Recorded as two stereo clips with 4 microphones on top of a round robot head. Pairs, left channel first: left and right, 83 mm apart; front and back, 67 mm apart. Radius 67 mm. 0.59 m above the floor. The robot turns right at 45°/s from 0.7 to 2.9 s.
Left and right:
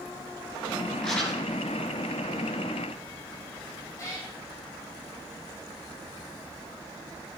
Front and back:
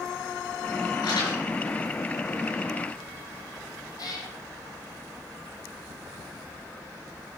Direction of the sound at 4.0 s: 25° left.